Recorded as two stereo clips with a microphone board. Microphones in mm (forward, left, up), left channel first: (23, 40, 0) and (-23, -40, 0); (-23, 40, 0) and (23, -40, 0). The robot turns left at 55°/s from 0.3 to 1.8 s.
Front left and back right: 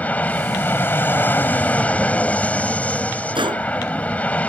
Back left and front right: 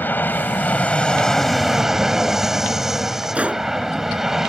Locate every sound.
0.0 s an aircraft: 100° left; by 4.5 s 15° left
3.4 s a gunshot: 135° right